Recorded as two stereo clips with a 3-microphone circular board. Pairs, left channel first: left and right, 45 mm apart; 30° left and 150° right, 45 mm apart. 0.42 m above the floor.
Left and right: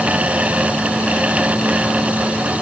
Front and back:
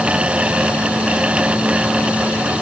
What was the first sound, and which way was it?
Only background noise.